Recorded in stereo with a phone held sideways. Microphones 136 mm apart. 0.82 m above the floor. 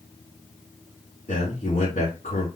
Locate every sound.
1.3 s a man speaking: 70° left (ahead or behind), 2.5 m